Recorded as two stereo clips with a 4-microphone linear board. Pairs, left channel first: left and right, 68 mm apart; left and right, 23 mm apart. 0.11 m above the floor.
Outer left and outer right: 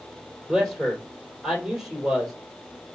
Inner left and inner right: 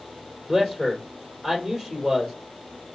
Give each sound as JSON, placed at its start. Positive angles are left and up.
{"t": 0.5, "sound": "a man speaking", "side_deg": -10, "distance_m": 3.0}